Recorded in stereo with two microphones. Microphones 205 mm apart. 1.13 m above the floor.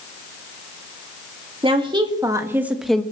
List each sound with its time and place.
1.6 s a woman speaking: 25° right (ahead or behind), 2 m; by 3.0 s 5° left (ahead or behind), 1.1 m